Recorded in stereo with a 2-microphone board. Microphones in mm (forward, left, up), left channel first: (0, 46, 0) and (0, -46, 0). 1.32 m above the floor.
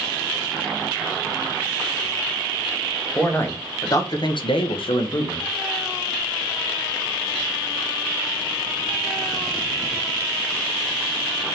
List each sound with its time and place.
3.1 s a man speaking: 20° left (ahead or behind), 0.9 m; by 5.5 s 50° left (ahead or behind), 0.7 m